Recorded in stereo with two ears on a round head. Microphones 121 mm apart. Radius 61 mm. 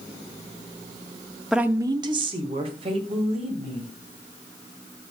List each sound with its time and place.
1.5 s a woman speaking: centre (ahead or behind), 0.6 m; by 3.9 s 50° right (ahead or behind), 3.5 m